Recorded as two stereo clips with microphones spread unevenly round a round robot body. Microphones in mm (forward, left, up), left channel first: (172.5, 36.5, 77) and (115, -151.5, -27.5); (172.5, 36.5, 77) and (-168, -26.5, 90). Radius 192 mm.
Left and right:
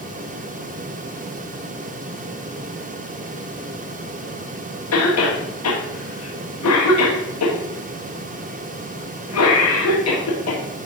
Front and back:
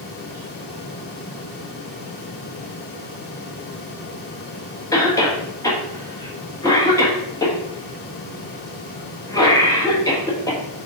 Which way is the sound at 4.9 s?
90° left.